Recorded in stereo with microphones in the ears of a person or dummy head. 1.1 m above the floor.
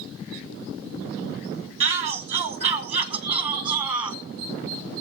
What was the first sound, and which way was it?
A shout, 30° right (ahead or behind).